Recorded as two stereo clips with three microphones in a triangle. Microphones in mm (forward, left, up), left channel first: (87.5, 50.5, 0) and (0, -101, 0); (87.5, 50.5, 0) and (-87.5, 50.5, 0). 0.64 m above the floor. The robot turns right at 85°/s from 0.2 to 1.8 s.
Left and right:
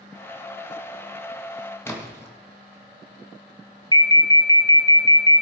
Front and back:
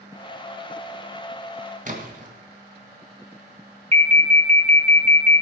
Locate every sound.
1.9 s a splash: 140° left, 2.5 m
3.9 s an alarm: 125° left, 1.6 m